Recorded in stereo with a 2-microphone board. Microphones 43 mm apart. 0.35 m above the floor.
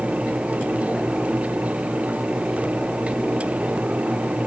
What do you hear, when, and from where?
Only background noise.